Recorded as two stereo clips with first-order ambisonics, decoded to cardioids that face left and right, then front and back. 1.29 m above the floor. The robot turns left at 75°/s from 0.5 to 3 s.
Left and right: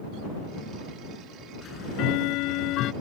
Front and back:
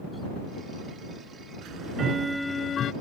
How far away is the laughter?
I don't hear laughter.